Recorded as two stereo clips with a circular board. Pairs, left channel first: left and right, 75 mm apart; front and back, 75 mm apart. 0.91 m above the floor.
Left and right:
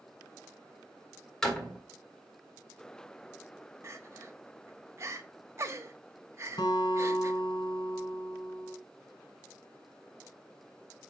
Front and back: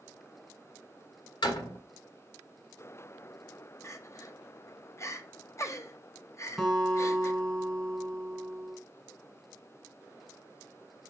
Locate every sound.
1.4 s a door slam: 5° left, 1.8 m
3.8 s crying: 45° right, 0.7 m
6.6 s a guitar: 90° left, 2.5 m